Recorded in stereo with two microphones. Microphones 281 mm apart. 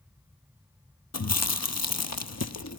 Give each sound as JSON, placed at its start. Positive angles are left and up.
{"t": 1.1, "sound": "chewing", "side_deg": 65, "distance_m": 0.9}